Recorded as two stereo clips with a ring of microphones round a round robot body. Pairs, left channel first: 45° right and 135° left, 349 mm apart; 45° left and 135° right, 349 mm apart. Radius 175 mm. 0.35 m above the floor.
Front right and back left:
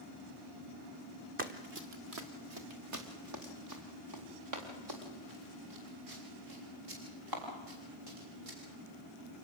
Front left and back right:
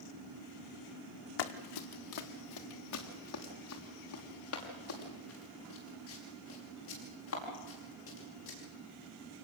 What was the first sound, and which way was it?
Running footsteps, 70° left.